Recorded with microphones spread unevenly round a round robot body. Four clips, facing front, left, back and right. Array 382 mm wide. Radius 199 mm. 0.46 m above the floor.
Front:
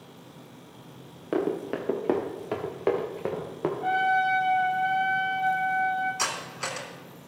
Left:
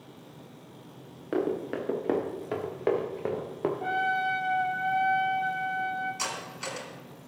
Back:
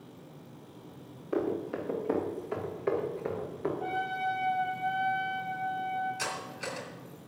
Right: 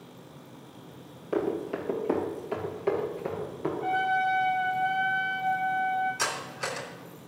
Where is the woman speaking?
I don't hear a woman speaking.